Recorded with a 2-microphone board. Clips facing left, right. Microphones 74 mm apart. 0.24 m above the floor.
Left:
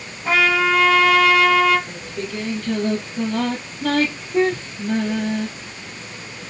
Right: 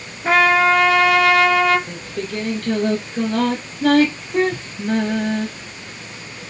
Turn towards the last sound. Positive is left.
turn(degrees=-65)  # may be behind; listen again after turning